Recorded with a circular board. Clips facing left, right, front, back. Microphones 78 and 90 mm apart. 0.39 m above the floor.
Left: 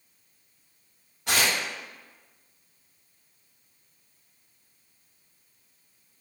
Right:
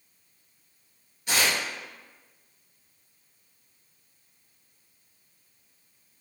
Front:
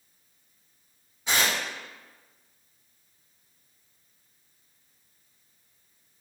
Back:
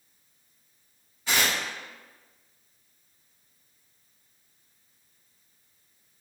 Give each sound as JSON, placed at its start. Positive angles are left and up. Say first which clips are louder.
{"t": 1.3, "sound": "tearing paper", "louder": "left 1 dB, even", "azimuth_deg": 70, "distance_m": 0.7}